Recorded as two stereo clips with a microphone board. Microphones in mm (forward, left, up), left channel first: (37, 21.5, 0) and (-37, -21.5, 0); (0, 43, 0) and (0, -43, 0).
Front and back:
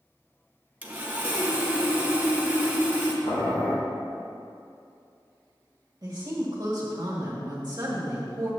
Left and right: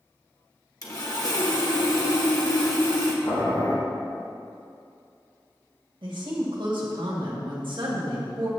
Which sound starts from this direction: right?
A woman speaking, at 6.0 s.